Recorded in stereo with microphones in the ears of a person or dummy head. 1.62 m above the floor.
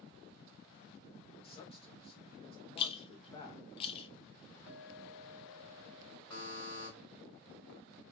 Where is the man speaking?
30° left (ahead or behind), 0.8 m.